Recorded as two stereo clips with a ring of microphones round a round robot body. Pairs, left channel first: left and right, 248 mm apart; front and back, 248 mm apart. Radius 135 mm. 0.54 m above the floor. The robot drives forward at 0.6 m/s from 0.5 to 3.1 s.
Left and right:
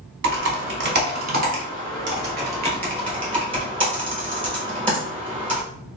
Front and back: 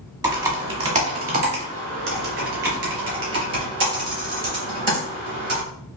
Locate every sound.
0.2 s typing on a keyboard: 110° right, 1.1 m; by 5.6 s 155° right, 2 m